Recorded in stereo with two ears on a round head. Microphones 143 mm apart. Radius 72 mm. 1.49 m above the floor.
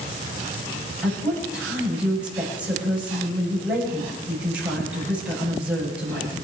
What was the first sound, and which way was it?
A woman speaking, 5° right (ahead or behind).